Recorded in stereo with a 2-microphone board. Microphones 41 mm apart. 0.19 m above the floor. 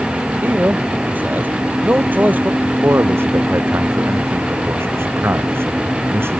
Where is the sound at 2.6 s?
85° right.